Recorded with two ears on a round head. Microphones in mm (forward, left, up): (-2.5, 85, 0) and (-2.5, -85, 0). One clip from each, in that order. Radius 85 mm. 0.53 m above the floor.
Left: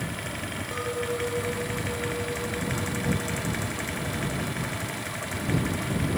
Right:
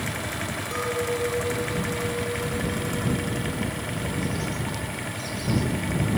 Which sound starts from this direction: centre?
A clink, at 0.7 s.